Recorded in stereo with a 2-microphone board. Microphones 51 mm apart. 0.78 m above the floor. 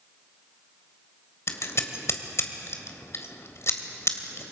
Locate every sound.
1.5 s scissors: 60° left (ahead or behind), 1.7 m